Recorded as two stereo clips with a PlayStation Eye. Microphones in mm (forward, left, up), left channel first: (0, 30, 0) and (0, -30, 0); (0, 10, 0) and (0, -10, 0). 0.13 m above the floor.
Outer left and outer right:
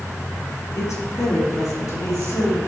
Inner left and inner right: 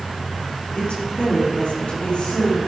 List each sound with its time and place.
0.8 s a woman speaking: 60° left (ahead or behind), 3.5 m; by 2.6 s 65° left (ahead or behind), 4.5 m